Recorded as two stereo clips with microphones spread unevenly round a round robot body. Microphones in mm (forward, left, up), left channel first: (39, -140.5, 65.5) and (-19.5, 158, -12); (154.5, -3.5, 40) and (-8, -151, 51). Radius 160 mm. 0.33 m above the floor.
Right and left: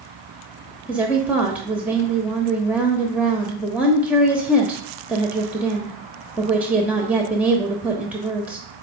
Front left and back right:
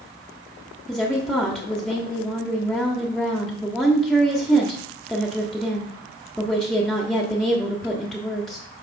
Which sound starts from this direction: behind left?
A woman speaking, at 0.9 s.